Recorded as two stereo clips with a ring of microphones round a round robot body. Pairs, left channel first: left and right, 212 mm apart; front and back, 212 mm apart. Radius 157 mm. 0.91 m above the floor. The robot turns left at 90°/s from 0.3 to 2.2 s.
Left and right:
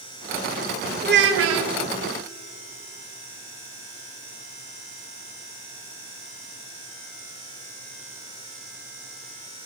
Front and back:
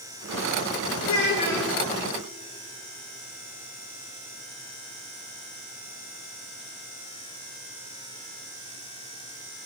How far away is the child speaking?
About 0.5 m.